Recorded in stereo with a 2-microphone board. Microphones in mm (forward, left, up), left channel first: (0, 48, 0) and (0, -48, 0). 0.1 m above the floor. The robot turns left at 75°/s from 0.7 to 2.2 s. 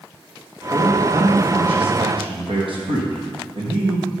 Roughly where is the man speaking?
Ahead.